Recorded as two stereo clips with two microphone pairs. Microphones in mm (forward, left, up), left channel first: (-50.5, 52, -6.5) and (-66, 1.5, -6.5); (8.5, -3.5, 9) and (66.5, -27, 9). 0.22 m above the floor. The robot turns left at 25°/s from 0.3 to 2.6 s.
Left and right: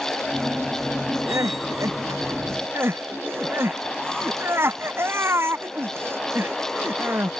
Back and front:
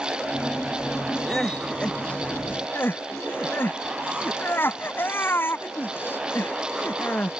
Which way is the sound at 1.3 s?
115° right.